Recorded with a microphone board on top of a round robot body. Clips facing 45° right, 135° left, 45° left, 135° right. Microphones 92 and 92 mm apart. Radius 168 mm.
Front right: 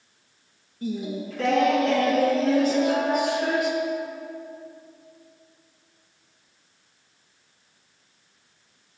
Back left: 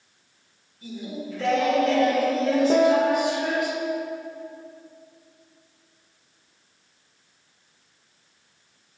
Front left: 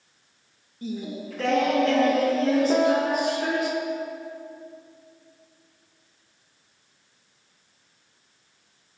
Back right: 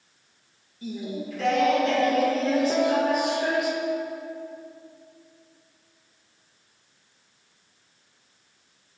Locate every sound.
0.8 s singing: 5° right, 2 m
2.7 s a piano: 110° left, 0.6 m